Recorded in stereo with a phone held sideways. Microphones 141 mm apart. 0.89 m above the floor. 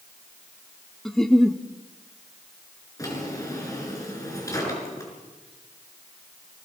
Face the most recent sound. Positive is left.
turn(degrees=25)  # may be behind; listen again after turning